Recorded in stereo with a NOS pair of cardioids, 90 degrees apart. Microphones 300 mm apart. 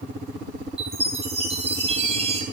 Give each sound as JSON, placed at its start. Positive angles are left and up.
{"t": 0.8, "sound": "a chime", "azimuth_deg": -20, "distance_m": 4.0}